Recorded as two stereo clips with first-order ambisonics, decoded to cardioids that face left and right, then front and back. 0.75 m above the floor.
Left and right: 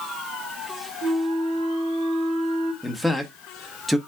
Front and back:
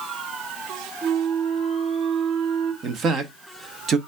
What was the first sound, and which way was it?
A flute, 125° right.